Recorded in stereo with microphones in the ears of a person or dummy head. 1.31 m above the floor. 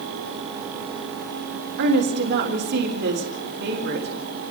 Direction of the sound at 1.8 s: 60° right (ahead or behind).